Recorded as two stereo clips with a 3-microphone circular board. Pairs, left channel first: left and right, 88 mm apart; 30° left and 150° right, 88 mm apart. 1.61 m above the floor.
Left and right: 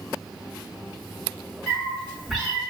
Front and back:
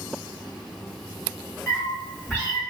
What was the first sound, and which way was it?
A cat meowing, straight ahead.